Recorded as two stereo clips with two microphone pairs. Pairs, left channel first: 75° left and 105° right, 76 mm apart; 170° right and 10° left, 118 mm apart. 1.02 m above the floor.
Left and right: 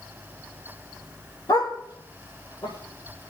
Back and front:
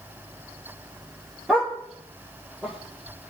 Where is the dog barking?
95° left, 6 m.